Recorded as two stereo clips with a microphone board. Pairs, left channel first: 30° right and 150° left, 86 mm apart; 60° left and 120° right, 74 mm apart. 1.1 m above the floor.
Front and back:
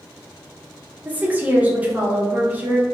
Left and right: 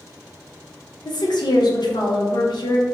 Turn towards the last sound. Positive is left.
turn(degrees=80)